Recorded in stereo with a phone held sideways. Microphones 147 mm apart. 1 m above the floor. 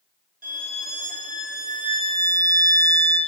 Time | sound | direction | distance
0.4 | a violin | 70° right (ahead or behind) | 0.7 m